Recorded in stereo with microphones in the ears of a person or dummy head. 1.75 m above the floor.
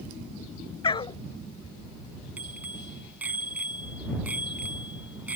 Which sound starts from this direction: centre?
A bicycle bell, at 2.4 s.